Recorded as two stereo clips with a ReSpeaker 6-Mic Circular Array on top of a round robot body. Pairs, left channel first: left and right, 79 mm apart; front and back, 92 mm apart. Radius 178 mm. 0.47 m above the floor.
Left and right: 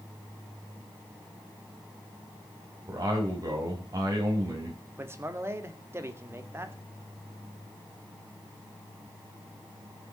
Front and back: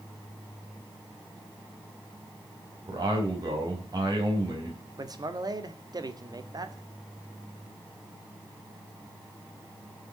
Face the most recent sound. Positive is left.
turn(degrees=-140)